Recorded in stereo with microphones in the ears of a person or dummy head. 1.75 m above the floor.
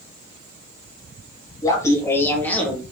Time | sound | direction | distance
1.6 | laughter | 20° left (ahead or behind) | 3 m